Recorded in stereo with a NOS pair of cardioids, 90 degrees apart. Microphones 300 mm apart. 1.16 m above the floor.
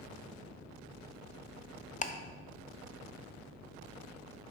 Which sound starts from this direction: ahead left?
Ticking, at 2.0 s.